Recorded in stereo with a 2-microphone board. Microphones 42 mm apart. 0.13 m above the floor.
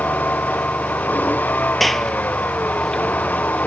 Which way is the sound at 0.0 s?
40° left (ahead or behind).